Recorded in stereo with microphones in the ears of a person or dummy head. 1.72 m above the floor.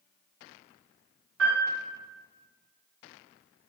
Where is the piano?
70° right (ahead or behind), 1.1 m.